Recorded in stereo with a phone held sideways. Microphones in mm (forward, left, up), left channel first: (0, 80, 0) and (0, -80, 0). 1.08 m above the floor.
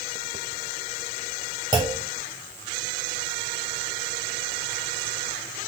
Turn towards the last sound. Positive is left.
turn(degrees=-30)  # may be behind; listen again after turning